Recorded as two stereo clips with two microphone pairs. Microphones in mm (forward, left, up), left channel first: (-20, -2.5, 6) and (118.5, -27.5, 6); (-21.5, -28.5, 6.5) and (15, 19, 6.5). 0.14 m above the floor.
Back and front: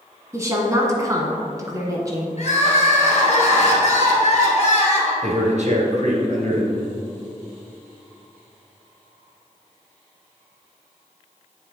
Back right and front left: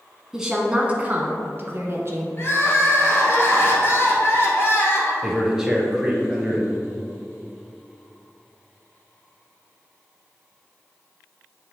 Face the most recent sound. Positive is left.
turn(degrees=-25)